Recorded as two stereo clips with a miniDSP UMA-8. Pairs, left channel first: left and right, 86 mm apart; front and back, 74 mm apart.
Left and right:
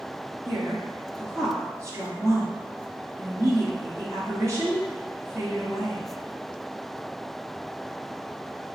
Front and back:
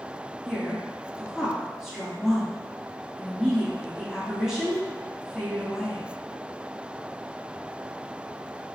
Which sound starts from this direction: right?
A woman speaking, at 0.5 s.